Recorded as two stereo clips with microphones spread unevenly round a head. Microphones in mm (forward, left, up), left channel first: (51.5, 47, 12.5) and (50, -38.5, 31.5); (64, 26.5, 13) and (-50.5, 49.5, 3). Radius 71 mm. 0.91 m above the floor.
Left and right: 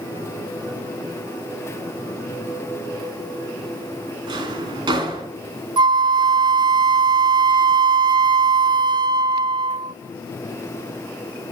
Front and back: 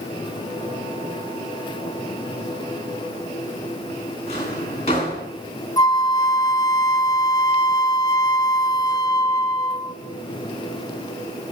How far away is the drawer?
About 2.5 m.